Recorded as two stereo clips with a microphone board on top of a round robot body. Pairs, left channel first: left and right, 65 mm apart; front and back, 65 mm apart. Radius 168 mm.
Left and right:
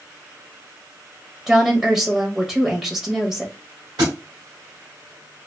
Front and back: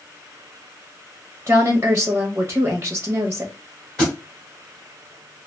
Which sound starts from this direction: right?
A thud, at 4.0 s.